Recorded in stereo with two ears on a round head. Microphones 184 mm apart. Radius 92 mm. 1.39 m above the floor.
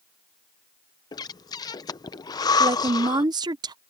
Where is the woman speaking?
20° right (ahead or behind).